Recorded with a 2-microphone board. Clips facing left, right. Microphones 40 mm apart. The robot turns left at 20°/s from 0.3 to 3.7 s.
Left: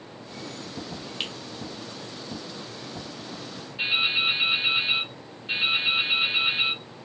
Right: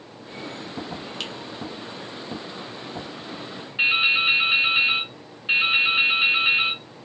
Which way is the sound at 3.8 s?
40° right (ahead or behind).